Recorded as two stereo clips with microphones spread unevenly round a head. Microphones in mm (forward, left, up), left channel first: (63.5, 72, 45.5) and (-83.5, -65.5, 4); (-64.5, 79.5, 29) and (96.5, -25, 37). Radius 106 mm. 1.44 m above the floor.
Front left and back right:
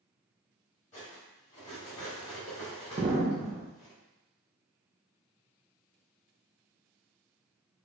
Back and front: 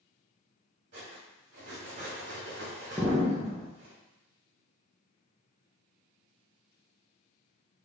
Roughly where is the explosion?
Right.